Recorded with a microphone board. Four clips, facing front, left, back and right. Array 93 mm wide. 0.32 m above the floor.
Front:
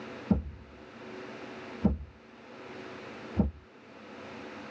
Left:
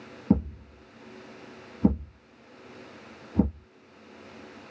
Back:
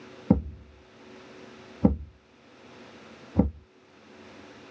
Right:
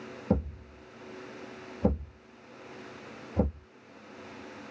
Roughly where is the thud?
Behind.